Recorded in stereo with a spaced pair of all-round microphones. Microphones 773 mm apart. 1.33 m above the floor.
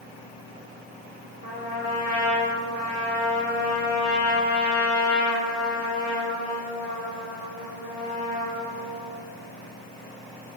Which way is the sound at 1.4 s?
50° left (ahead or behind).